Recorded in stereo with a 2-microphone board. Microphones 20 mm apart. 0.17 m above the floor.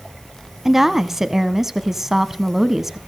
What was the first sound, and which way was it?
A woman speaking, 15° right (ahead or behind).